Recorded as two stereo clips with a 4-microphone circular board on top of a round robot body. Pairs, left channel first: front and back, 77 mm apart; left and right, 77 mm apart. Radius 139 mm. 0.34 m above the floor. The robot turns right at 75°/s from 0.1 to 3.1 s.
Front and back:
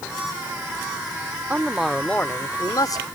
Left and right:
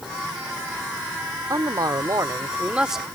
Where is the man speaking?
115° right; by 3.0 s straight ahead.